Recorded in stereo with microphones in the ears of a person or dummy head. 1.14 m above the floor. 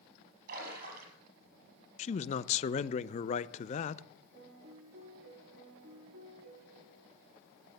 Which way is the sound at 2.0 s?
30° left (ahead or behind).